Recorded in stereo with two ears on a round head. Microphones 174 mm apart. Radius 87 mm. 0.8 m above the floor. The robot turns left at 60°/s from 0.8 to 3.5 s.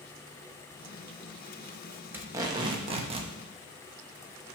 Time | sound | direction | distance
2.1 | tape being pulled | 20° right | 0.9 m